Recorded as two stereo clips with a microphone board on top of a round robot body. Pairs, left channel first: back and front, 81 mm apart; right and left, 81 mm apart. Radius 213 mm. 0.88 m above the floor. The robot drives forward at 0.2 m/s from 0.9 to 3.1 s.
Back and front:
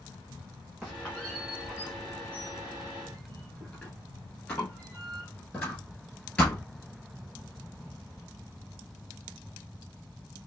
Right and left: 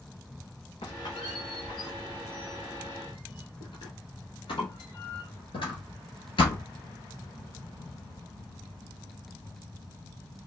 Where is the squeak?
85° right, 1.4 m; by 6.7 s 110° right, 1.4 m.